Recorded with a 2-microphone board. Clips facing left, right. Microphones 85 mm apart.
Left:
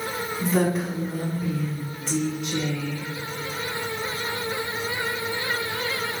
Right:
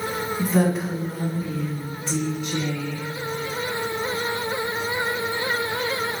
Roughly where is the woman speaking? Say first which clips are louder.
Right 1 dB; centre.